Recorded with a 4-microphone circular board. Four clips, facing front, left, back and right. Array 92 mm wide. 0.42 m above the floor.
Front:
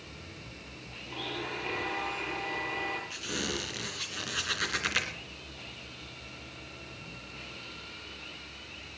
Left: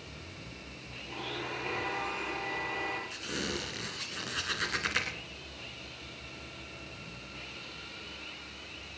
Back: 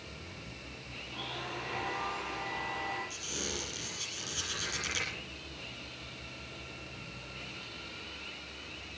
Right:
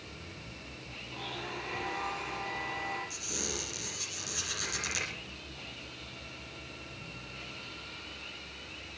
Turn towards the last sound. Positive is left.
turn(degrees=40)